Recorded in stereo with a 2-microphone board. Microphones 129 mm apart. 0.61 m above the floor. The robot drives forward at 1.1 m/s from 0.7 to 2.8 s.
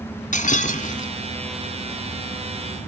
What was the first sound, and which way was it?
Breaking glass, 80° left.